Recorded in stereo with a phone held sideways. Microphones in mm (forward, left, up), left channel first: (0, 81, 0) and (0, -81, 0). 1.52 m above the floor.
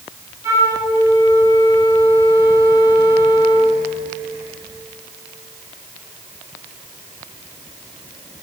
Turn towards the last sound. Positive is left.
turn(degrees=-20)  # may be behind; listen again after turning